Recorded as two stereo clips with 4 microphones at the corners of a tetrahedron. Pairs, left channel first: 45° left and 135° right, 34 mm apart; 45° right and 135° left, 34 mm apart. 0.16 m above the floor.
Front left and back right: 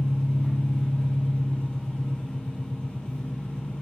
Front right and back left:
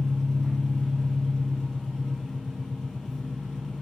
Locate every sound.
0.0 s an engine running: 35° left, 1.0 m